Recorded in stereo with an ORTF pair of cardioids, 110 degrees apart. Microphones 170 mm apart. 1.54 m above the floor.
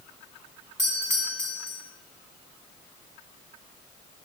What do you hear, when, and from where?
0.8 s a doorbell: 15° right, 2.5 m